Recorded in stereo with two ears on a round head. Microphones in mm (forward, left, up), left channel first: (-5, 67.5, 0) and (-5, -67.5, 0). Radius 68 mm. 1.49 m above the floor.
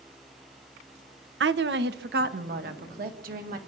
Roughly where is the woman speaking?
Right.